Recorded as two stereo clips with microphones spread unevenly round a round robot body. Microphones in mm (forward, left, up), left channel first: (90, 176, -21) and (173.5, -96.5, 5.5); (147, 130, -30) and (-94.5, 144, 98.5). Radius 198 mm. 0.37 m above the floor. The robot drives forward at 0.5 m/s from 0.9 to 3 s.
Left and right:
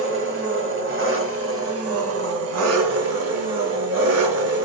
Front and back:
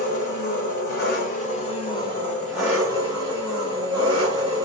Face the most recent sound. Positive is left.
turn(degrees=-85)